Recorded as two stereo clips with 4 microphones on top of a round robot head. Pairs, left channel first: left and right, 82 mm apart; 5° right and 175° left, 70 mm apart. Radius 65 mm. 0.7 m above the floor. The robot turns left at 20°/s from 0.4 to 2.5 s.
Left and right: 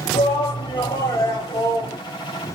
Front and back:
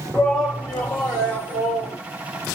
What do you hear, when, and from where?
0.1 s a shout: 70° left, 1.8 m; by 2.0 s 40° left, 1.8 m